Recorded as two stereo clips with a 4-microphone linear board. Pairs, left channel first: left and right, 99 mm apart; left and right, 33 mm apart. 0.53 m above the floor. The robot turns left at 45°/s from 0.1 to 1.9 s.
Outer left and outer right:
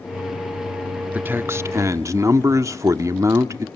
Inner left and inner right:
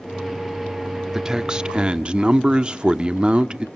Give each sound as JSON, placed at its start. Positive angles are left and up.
{"t": 1.1, "sound": "a man speaking", "azimuth_deg": -30, "distance_m": 0.9}